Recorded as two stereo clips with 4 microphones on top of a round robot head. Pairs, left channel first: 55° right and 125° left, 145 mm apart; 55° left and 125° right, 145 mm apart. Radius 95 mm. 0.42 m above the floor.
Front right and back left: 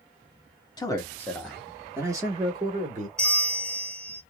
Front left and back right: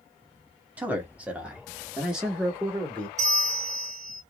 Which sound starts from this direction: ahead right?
A man speaking, at 0.8 s.